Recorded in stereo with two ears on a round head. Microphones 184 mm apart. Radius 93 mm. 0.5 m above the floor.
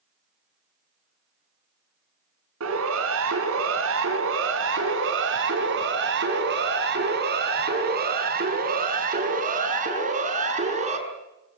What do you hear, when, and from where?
2.6 s a siren: 75° right (ahead or behind), 5.5 m; by 11.0 s 35° right (ahead or behind), 6.5 m